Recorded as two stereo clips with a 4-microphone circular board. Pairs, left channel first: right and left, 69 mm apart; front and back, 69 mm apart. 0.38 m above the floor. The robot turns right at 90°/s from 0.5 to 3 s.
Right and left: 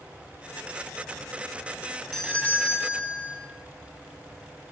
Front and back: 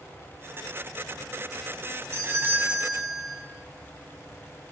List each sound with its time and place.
2.1 s a doorbell: 170° right, 2 m; by 3.4 s 95° right, 2 m